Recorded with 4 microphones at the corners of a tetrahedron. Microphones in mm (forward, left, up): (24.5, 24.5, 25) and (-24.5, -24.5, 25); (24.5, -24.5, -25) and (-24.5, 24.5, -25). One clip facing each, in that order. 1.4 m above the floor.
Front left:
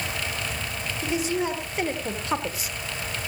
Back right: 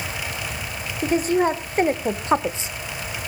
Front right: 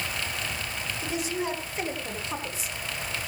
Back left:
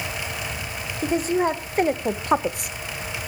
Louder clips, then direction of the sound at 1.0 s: Back right 7 dB, back left 10 dB; straight behind.